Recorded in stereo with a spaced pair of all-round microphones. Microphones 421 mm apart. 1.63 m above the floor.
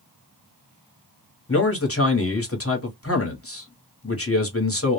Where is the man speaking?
35° left (ahead or behind), 1.0 m.